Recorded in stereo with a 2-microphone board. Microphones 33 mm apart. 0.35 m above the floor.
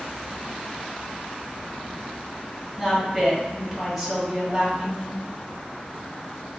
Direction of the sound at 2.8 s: Centre (ahead or behind).